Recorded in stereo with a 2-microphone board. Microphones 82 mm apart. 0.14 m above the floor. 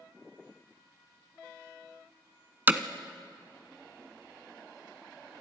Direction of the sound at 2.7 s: 25° right (ahead or behind).